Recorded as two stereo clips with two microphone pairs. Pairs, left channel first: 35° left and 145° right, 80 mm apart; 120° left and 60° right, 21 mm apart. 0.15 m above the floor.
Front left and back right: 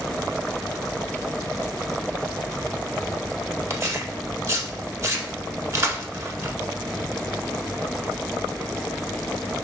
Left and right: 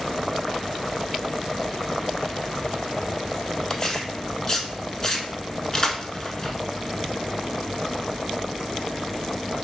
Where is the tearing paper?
175° left, 0.6 m.